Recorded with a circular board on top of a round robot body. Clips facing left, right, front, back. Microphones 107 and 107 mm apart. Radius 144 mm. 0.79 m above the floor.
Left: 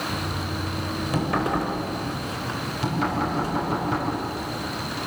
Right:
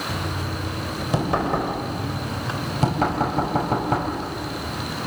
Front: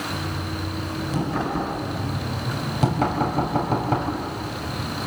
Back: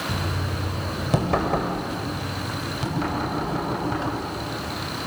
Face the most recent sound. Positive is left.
turn(degrees=-45)